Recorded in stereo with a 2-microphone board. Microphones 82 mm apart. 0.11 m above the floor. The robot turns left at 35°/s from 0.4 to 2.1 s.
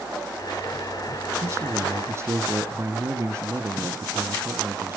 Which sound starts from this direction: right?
A man speaking, at 1.4 s.